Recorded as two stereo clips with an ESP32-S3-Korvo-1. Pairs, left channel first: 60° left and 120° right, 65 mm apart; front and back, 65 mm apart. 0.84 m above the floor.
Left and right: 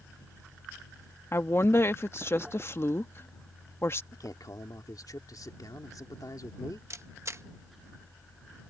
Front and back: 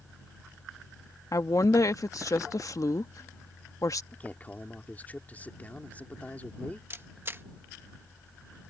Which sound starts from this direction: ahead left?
A man speaking, at 4.1 s.